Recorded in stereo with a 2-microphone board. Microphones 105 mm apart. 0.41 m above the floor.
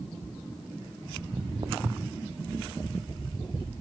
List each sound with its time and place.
1.2 s footsteps: 25° right (ahead or behind), 0.6 m; by 2.2 s 75° right (ahead or behind), 1.4 m